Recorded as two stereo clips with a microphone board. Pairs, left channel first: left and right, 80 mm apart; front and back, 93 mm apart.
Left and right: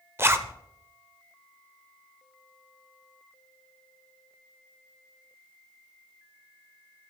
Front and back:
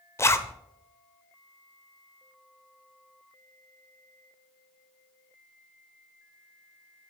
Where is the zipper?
45° right, 0.7 m.